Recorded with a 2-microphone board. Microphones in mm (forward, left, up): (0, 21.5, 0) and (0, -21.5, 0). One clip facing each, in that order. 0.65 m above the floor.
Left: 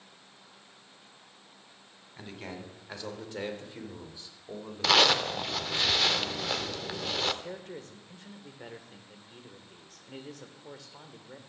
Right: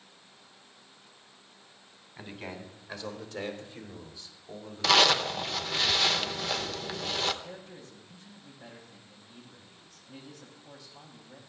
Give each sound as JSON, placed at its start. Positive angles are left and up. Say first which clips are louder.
{"t": 2.2, "sound": "a man speaking", "louder": "right 1 dB", "side_deg": -5, "distance_m": 2.5}
{"t": 4.8, "sound": "a zipper", "louder": "right 1 dB", "side_deg": 5, "distance_m": 0.8}
{"t": 7.4, "sound": "a man speaking", "louder": "left 4 dB", "side_deg": 65, "distance_m": 2.5}